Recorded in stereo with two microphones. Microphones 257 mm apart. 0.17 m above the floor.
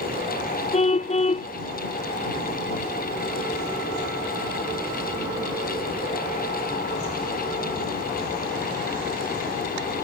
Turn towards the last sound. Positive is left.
turn(degrees=25)  # may be behind; listen again after turning